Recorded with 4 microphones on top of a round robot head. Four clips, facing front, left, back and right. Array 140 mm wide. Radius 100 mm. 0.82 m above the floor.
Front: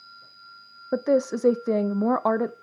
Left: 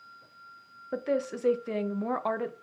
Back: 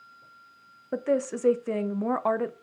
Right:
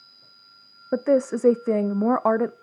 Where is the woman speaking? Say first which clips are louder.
Right 9 dB, front 4 dB; 65° right, 0.5 m.